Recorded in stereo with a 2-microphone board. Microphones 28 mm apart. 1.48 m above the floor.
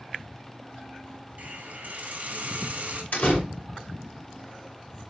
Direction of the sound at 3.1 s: 65° left (ahead or behind).